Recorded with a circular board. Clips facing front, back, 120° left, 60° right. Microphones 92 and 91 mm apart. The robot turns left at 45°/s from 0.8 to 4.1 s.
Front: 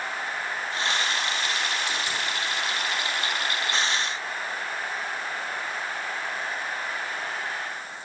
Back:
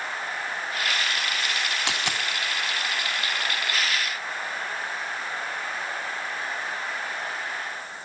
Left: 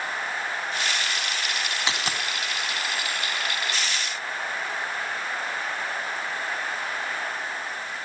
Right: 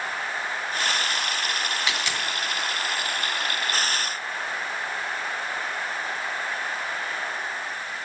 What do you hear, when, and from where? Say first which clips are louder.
1.9 s a dropped coin: back 1 dB, even; straight behind, 2.5 m; by 2.2 s 165° left, 2.5 m